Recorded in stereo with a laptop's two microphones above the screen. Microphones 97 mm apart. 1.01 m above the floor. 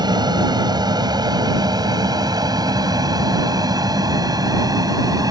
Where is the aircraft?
50° right (ahead or behind); by 5.3 s 40° right (ahead or behind).